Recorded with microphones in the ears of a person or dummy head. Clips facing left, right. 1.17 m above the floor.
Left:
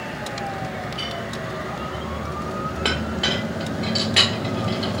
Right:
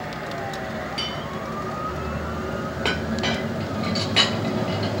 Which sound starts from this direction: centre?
A clink, at 2.9 s.